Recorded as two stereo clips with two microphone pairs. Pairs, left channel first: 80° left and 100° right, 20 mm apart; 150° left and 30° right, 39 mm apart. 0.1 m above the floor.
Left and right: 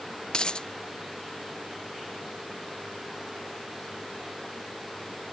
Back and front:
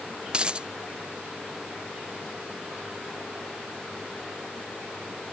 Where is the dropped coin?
35° left.